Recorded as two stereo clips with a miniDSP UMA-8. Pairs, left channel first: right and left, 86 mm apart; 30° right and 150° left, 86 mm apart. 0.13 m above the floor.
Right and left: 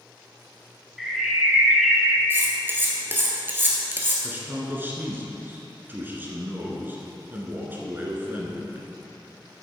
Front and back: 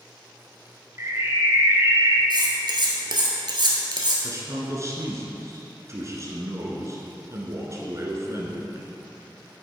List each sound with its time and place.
1.0 s a bird: 175° left, 0.9 m
2.3 s cutlery clinking: 150° left, 1.3 m
4.2 s a man speaking: 140° left, 1.4 m